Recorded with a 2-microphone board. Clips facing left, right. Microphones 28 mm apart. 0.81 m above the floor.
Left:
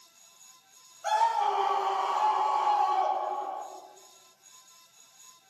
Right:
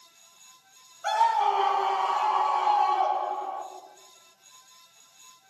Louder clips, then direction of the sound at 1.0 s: Right 3 dB; 25° right (ahead or behind).